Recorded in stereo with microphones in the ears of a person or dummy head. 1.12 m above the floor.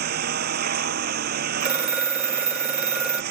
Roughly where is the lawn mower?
Right.